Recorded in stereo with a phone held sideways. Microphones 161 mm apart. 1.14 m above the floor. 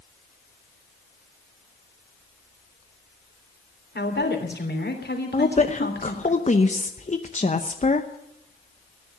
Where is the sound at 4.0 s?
85° left, 3 m.